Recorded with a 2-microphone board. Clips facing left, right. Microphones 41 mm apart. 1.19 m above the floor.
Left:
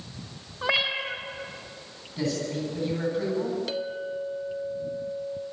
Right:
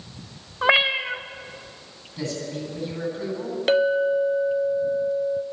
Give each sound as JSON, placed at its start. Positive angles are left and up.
{"t": 0.6, "sound": "a cat meowing", "side_deg": -35, "distance_m": 1.0}
{"t": 2.2, "sound": "a man speaking", "side_deg": 5, "distance_m": 10.0}
{"t": 3.7, "sound": "a clink", "side_deg": -55, "distance_m": 0.8}